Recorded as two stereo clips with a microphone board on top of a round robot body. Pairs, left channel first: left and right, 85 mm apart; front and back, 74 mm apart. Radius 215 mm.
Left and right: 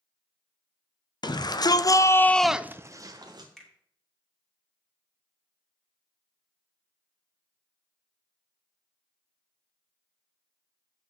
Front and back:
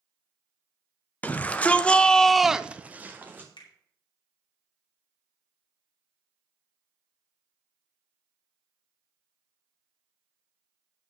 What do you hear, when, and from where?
1.2 s a shout: 70° left, 1.4 m; by 3.5 s 115° right, 1.2 m
3.6 s a finger snap: 5° left, 2.5 m